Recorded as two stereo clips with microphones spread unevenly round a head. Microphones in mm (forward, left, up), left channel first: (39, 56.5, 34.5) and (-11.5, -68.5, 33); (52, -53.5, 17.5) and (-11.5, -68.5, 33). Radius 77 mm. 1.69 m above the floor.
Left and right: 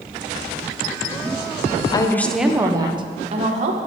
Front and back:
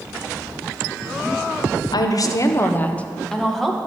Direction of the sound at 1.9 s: 5° left.